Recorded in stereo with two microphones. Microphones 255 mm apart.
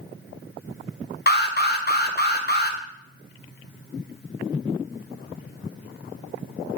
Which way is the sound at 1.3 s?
40° left (ahead or behind).